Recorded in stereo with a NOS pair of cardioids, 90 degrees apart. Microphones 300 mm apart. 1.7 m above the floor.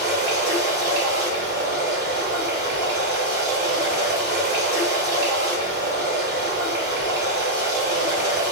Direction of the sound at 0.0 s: 35° right.